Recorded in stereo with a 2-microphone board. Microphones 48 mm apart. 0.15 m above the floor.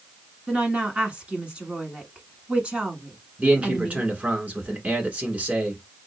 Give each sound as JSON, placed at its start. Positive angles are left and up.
{"t": 0.5, "sound": "a woman speaking", "side_deg": -20, "distance_m": 1.1}
{"t": 3.4, "sound": "a man speaking", "side_deg": -30, "distance_m": 1.4}